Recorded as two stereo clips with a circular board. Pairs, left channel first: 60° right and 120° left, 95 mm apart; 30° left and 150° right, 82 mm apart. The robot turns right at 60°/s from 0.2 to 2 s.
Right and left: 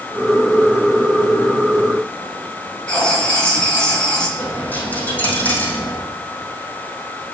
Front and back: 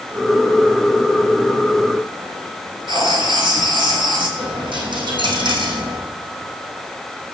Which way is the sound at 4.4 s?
135° right.